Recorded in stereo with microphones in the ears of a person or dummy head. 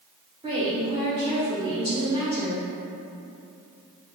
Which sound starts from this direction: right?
A woman speaking, at 0.4 s.